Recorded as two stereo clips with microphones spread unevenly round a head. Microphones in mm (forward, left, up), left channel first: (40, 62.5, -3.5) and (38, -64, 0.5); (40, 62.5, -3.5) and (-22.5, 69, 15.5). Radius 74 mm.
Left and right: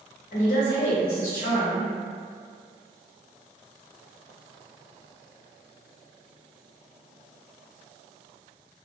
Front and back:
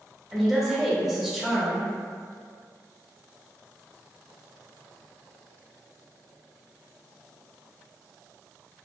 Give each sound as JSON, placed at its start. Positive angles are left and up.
{"t": 0.3, "sound": "a woman speaking", "azimuth_deg": 85, "distance_m": 1.0}